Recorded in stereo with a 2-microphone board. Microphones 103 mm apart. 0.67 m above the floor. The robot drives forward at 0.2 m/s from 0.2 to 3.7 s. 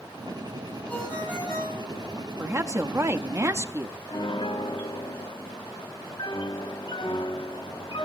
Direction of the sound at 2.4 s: 30° right (ahead or behind).